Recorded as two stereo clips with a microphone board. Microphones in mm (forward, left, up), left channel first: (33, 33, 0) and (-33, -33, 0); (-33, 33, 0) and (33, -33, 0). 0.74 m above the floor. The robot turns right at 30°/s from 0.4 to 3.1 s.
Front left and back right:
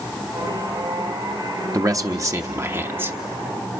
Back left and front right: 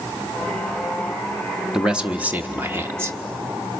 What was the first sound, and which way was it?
A man speaking, 120° right.